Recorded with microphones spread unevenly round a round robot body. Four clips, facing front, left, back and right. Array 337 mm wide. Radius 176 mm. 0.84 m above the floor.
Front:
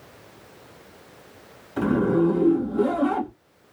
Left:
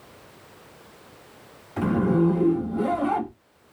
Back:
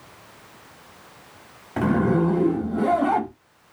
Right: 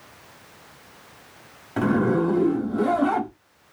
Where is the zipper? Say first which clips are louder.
Right 1 dB, even; 135° right, 2 m.